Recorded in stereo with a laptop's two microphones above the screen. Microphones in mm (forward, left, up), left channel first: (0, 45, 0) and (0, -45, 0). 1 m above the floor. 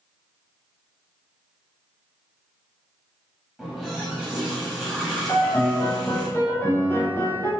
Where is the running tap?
5° right (ahead or behind), 0.6 m.